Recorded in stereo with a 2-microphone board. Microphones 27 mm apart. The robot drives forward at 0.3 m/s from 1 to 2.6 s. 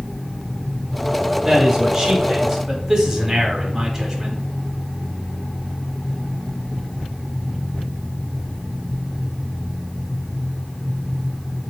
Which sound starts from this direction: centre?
A man speaking, at 1.4 s.